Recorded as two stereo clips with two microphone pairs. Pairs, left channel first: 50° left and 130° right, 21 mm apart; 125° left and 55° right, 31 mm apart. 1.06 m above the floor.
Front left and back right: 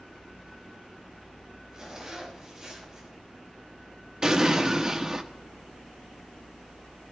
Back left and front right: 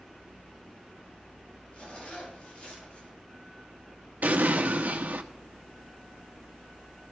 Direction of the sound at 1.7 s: 165° left.